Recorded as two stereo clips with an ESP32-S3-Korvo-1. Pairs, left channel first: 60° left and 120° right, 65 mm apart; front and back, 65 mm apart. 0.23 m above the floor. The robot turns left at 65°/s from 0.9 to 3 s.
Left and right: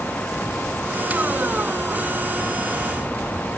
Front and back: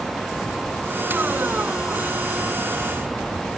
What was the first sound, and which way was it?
Only background noise.